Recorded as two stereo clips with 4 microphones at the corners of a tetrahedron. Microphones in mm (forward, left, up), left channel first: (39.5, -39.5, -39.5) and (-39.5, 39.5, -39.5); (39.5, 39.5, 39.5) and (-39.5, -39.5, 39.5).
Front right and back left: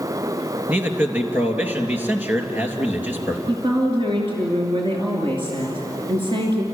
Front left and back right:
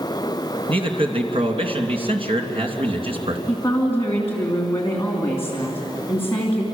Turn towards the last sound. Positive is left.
turn(degrees=110)